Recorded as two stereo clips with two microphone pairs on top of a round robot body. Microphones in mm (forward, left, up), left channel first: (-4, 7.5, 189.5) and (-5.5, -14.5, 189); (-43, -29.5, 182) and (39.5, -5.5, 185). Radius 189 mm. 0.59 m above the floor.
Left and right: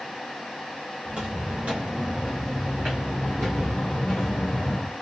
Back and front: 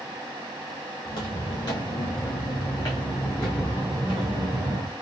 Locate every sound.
1.1 s footsteps: 120° right, 1.6 m; by 4.9 s 50° left, 0.9 m